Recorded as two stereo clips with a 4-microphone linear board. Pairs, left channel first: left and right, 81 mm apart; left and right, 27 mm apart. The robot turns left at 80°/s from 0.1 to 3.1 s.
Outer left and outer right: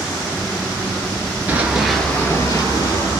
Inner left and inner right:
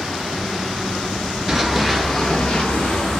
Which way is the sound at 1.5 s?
20° right (ahead or behind).